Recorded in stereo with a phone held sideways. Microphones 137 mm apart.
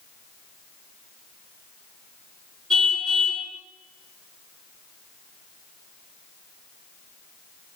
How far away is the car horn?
About 7.5 m.